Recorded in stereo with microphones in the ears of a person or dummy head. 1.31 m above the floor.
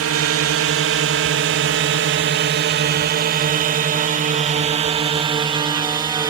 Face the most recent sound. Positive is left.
turn(degrees=-20)  # may be behind; listen again after turning